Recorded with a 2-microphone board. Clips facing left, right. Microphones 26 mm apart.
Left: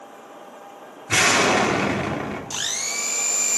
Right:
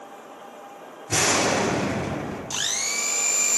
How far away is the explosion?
About 1.8 m.